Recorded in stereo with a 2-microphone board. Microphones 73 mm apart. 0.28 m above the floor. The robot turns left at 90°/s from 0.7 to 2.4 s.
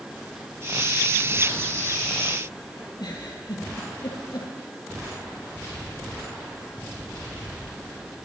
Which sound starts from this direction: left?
A giggle, at 3.0 s.